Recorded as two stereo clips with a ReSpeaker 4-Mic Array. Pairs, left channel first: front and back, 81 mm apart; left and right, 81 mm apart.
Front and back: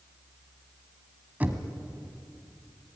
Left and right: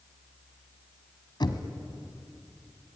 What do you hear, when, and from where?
1.4 s knocking: 110° left, 1.7 m